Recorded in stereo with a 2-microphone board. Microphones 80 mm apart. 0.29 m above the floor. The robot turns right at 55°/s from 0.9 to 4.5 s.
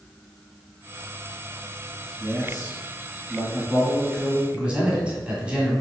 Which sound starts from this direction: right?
A man speaking, at 2.2 s.